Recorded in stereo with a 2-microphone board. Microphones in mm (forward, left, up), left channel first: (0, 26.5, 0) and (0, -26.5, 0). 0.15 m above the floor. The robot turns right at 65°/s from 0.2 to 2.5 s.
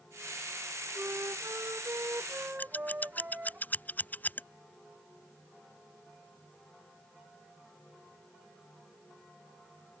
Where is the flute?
130° right; by 3.6 s 30° right.